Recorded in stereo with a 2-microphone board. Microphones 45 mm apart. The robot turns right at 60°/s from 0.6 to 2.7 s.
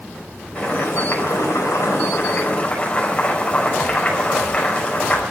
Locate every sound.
0.6 s boiling: 30° left, 5.5 m; by 5.2 s 155° left, 5.5 m